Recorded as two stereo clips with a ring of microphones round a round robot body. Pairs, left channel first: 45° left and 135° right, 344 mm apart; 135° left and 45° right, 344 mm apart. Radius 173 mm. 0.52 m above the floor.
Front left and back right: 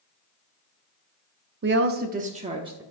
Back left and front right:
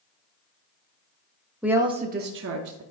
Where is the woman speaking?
130° right, 0.7 m; by 2.8 s 60° right, 0.9 m.